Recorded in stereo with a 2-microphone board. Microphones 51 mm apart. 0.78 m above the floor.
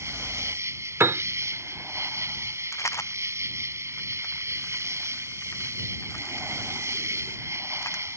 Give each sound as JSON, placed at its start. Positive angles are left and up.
{"t": 0.0, "sound": "an insect", "side_deg": -60}
{"t": 1.0, "sound": "a piano", "side_deg": -55}
{"t": 2.7, "sound": "a rattle", "side_deg": 70}